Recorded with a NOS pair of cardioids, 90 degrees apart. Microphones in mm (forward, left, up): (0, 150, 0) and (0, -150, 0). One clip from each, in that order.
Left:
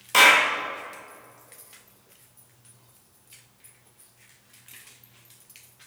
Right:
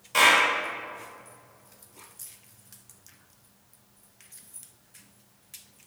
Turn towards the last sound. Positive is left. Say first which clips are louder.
# left 3 dB
turn(degrees=60)